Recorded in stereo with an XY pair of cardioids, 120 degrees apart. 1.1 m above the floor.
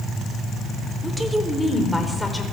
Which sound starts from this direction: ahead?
A woman speaking, at 1.0 s.